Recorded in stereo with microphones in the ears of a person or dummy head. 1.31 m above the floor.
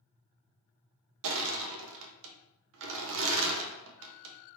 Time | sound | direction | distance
1.2 | crushing | 70° right (ahead or behind) | 0.5 m